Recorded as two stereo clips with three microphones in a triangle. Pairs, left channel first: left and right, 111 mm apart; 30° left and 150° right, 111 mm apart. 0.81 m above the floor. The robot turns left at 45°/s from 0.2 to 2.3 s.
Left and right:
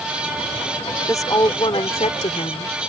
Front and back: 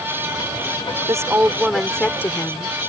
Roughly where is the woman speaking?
Behind left.